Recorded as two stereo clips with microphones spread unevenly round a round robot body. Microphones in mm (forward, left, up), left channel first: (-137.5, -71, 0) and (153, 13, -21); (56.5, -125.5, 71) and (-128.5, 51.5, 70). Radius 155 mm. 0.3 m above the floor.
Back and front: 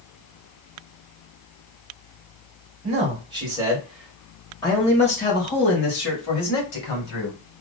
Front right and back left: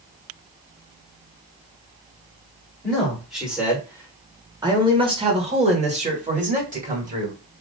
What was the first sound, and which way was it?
A man speaking, 40° left.